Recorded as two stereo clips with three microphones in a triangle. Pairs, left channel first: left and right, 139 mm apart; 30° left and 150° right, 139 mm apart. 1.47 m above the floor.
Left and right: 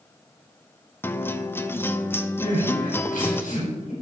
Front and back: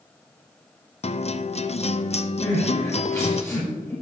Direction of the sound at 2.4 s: 100° left.